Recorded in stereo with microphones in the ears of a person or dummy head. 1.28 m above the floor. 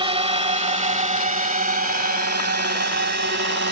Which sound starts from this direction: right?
A drone, at 0.0 s.